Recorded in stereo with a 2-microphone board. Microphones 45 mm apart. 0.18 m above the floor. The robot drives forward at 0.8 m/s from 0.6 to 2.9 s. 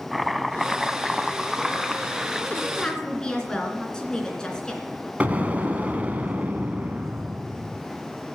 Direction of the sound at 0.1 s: Centre (ahead or behind).